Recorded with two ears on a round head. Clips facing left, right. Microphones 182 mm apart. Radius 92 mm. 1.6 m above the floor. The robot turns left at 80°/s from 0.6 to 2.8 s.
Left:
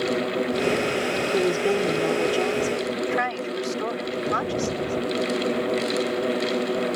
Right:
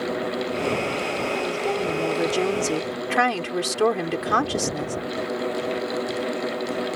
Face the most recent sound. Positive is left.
turn(degrees=-60)